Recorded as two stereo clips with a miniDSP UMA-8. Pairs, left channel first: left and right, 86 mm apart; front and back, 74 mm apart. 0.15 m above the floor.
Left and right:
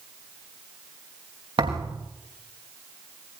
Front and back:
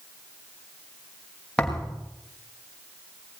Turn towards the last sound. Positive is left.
turn(degrees=-75)